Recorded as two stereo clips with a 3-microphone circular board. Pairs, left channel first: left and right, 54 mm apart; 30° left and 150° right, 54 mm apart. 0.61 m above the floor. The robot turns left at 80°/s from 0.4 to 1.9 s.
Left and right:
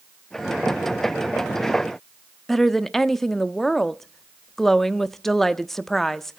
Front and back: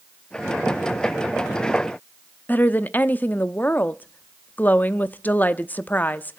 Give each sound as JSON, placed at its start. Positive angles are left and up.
{"t": 2.5, "sound": "a woman speaking", "azimuth_deg": 10, "distance_m": 0.7}